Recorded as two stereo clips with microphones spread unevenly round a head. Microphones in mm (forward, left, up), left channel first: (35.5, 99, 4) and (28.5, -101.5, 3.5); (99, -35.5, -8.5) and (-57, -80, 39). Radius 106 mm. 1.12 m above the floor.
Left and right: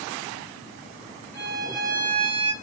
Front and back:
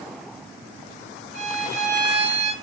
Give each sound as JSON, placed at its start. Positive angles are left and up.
{"t": 1.3, "sound": "a violin", "azimuth_deg": 170, "distance_m": 1.1}